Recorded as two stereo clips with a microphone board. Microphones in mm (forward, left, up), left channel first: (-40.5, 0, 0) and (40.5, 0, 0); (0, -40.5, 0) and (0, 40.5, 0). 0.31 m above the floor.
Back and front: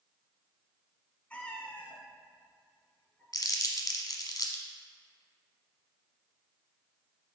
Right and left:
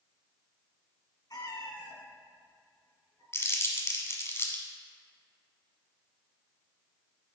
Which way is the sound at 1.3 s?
110° right.